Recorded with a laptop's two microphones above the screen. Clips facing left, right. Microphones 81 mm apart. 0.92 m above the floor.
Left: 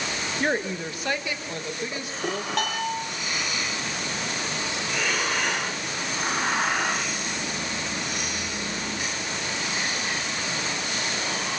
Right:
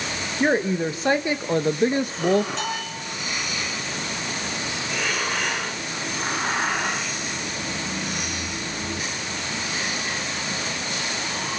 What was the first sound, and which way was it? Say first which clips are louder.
A woman speaking: right 6 dB; 15° right (ahead or behind).